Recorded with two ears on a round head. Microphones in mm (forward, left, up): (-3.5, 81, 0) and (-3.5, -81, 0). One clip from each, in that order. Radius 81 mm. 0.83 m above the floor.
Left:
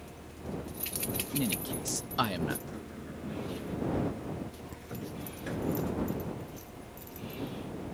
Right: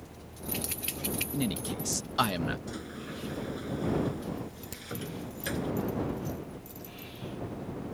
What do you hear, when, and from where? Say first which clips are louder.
1.3 s a man speaking: even; 5° right (ahead or behind)
2.7 s a sliding door: right 3 dB; 80° right
4.7 s a crack: right 3 dB; 80° right